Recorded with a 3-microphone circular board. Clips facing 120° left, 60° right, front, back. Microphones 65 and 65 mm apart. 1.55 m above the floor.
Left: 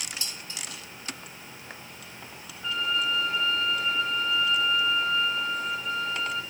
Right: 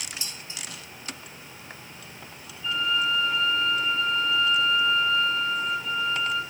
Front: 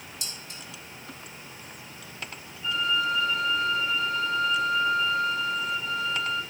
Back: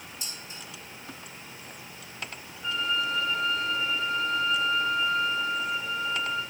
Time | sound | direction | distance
0.2 | dishes clattering | 10° left | 1.8 m
2.6 | a violin | 150° left | 7.5 m